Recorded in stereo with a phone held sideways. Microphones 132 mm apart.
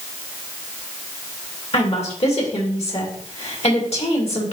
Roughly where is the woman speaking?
Left.